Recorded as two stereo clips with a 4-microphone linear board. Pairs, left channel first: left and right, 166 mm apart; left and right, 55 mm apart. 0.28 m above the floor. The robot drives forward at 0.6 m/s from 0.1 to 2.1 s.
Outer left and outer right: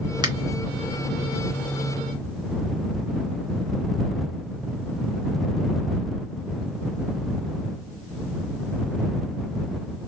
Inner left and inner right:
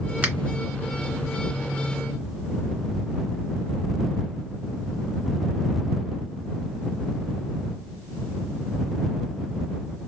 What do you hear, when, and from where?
0.2 s a finger snap: 25° right (ahead or behind), 0.8 m